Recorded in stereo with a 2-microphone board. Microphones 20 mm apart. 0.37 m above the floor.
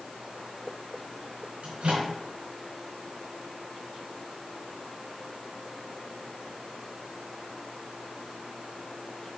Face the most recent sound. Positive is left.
turn(degrees=-70)  # may be behind; listen again after turning